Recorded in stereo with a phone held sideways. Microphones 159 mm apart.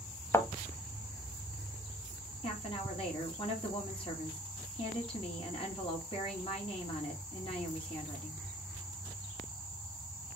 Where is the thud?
15° left (ahead or behind), 0.9 m.